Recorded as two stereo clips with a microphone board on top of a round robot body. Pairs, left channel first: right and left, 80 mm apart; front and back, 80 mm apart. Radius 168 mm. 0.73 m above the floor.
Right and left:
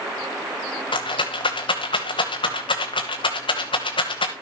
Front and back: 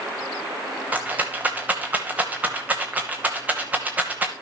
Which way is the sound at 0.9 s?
105° right.